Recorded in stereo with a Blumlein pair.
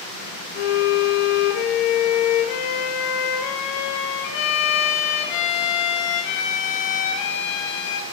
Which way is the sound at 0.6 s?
45° left.